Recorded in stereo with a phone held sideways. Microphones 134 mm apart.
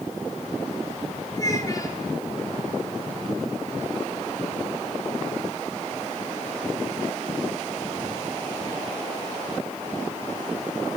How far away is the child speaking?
About 9 m.